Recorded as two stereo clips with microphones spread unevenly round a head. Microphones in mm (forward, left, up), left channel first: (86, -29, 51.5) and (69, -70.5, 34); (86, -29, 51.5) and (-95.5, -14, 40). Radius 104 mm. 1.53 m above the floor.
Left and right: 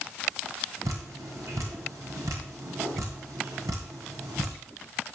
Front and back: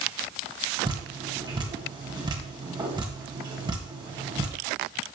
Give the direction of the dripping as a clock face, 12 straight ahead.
4 o'clock.